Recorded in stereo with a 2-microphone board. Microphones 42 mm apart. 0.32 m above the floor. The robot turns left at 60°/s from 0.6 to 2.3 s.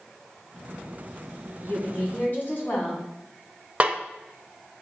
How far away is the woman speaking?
About 2.5 m.